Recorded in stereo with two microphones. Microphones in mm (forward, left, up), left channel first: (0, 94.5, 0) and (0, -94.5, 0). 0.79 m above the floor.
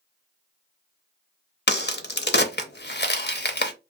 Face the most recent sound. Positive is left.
turn(degrees=65)  # may be behind; listen again after turning